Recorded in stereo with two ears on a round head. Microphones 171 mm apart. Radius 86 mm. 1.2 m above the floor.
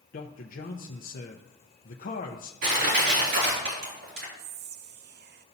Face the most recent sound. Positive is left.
turn(degrees=-55)  # may be behind; listen again after turning